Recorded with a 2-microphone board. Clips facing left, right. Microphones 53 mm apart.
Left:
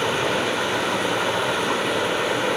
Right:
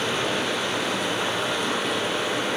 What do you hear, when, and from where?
0.0 s running water: 30° left (ahead or behind), 4 m